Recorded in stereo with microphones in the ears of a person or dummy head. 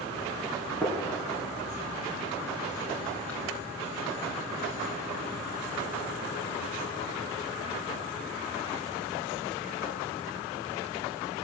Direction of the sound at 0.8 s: 5° left (ahead or behind).